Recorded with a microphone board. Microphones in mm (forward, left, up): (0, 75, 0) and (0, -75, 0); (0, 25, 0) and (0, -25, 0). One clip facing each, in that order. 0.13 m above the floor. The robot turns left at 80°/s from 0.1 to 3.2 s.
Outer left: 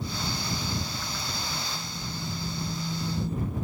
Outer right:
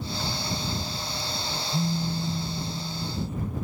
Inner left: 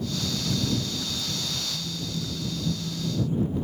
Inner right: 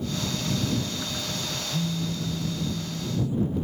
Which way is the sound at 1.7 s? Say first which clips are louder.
Outer right 10 dB, inner right 4 dB; 100° right.